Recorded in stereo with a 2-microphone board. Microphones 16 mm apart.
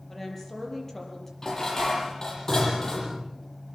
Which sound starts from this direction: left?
Dishes clattering, at 1.4 s.